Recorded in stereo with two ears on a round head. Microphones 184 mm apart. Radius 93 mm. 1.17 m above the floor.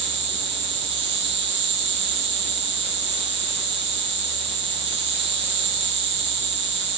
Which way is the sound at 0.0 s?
55° right (ahead or behind).